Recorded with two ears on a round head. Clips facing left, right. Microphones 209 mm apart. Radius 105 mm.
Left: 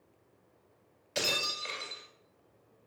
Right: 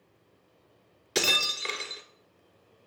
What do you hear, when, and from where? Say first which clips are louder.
1.1 s breaking glass: right 5 dB; 75° right (ahead or behind), 1.4 m